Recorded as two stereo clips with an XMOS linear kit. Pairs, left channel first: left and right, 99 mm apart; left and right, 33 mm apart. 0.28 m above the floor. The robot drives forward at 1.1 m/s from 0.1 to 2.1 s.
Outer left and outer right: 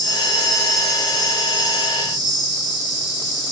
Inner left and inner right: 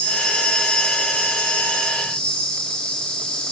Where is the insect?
50° left (ahead or behind), 3.5 m; by 3.5 s 35° left (ahead or behind), 5 m.